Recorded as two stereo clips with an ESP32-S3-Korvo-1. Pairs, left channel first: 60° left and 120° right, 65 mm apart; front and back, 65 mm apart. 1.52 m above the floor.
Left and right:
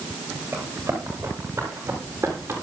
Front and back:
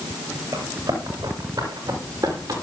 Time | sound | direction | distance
0.5 | running footsteps | 170° right | 9 m